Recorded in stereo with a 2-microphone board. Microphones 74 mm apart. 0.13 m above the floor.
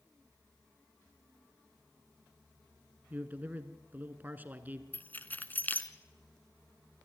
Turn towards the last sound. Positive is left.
turn(degrees=25)  # may be behind; listen again after turning